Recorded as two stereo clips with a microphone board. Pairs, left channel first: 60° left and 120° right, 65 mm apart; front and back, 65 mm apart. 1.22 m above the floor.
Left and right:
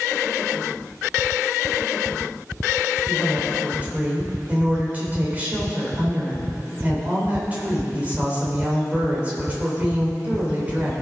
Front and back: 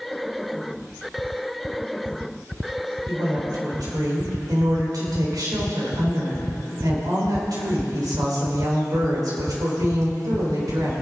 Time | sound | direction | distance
3.1 | a woman speaking | 175° left | 4 m